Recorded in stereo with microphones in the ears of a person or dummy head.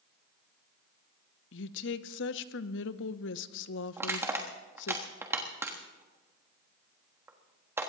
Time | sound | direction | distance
1.5 | a woman speaking | 60° left (ahead or behind) | 0.7 m
4.0 | crushing | 5° right (ahead or behind) | 1.3 m